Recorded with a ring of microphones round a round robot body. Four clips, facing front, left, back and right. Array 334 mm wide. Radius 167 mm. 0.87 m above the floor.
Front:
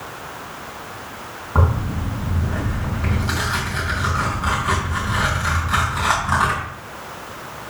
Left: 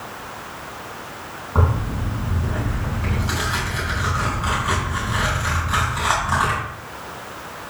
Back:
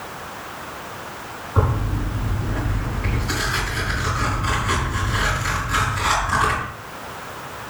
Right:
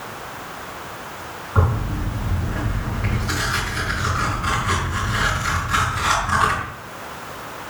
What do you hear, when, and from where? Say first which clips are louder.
1.6 s tearing paper: even, front 1 dB; 25° left, 5 m